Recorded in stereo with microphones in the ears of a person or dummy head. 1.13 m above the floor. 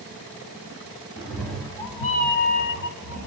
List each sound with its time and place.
1.2 s a cat meowing: 5° right (ahead or behind), 1.0 m; by 3.3 s 55° left (ahead or behind), 1.0 m